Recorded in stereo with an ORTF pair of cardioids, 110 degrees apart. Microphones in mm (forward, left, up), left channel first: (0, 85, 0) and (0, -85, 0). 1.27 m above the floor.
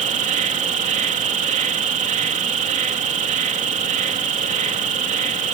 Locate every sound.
0.0 s an insect: 50° right